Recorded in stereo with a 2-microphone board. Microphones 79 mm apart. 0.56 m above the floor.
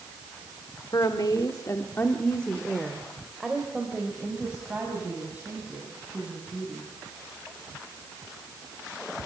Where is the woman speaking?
55° left (ahead or behind), 1.6 m; by 6.9 s 20° right (ahead or behind), 6.5 m.